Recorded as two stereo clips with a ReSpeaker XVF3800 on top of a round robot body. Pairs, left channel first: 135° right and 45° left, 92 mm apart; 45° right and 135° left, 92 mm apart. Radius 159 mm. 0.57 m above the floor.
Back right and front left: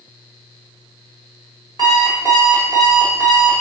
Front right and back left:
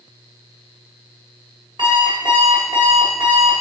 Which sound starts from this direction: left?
An alarm clock, at 1.8 s.